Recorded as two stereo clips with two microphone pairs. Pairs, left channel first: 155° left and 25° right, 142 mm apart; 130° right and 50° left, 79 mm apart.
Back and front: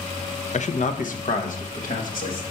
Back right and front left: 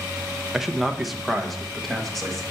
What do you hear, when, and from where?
0.5 s a man speaking: 135° left, 0.6 m; by 2.4 s 145° left, 1.8 m